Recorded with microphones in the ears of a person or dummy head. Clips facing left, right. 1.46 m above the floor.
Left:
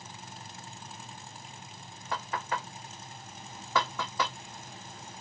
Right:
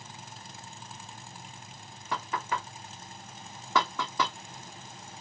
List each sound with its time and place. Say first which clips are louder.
2.1 s knocking: right 1 dB; 85° right, 1.4 m